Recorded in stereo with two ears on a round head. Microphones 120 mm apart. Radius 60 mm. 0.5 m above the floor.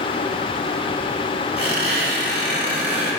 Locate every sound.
1.6 s a squeak: 15° right (ahead or behind), 1.6 m